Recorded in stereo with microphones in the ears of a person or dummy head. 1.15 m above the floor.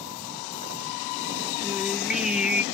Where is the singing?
Centre (ahead or behind), 0.9 m.